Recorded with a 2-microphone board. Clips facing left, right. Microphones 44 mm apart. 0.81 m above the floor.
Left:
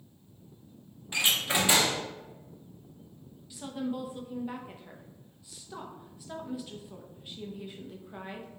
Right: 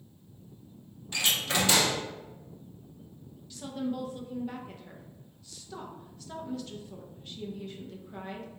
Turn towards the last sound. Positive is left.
turn(degrees=10)  # may be behind; listen again after turning